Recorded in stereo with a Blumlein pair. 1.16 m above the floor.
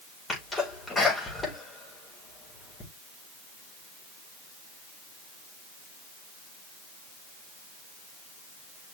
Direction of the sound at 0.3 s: 15° left.